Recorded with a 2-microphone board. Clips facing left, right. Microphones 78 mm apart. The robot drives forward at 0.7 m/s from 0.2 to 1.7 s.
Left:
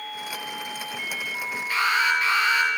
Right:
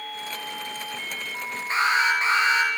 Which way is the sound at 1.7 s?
25° right (ahead or behind).